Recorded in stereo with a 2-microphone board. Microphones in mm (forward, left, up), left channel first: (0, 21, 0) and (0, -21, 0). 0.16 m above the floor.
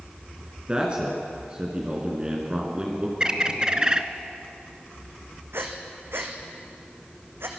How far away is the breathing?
About 2.5 m.